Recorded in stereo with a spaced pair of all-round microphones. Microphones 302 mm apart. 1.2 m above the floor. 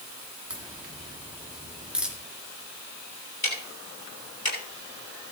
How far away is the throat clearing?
I don't hear throat clearing.